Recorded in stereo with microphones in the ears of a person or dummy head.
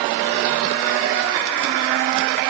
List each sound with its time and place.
Only background noise.